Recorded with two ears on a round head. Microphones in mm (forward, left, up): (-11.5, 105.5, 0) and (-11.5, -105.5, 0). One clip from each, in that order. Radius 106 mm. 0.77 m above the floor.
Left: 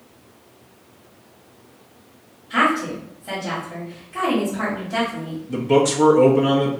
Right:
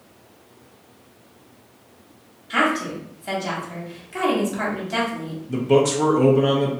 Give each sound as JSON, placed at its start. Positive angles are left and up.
{"t": 2.5, "sound": "a woman speaking", "side_deg": -70, "distance_m": 1.6}
{"t": 5.5, "sound": "a man speaking", "side_deg": 0, "distance_m": 0.5}